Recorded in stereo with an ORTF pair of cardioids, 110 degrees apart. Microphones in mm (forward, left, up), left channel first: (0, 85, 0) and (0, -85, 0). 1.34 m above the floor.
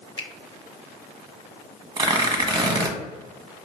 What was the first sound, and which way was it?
A finger snap, 35° left.